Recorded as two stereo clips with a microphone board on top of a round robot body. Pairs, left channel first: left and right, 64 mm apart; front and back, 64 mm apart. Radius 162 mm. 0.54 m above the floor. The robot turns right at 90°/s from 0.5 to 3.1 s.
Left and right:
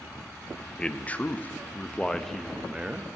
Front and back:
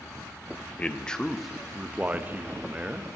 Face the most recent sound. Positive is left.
turn(degrees=-120)